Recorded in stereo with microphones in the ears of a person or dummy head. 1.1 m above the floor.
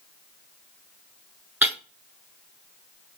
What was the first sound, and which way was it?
Breaking glass, 15° right (ahead or behind).